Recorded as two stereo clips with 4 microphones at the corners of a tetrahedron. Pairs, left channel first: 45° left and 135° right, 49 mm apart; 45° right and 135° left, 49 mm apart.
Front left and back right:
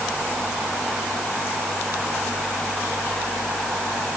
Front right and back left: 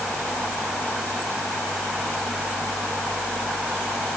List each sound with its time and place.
Only background noise.